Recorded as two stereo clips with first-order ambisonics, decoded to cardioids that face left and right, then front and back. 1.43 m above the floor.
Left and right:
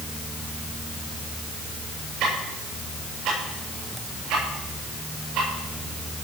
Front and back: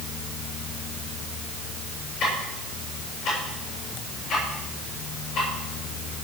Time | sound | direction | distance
2.2 | ticking | 55° right | 8 m